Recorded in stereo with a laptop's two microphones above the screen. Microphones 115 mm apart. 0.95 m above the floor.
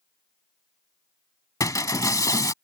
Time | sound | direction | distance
1.6 | breaking glass | 30° left (ahead or behind) | ?